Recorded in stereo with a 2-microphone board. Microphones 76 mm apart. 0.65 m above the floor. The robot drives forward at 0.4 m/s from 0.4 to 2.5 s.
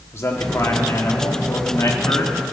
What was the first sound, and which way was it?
A man speaking, 40° left (ahead or behind).